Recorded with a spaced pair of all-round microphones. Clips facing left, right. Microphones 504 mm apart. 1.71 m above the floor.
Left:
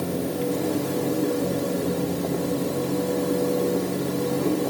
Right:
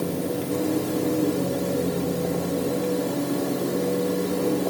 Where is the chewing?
I don't hear chewing.